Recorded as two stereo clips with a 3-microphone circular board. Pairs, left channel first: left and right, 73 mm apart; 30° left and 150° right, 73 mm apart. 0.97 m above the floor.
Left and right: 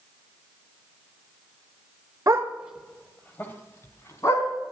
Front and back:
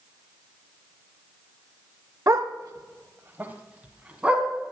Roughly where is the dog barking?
Behind right.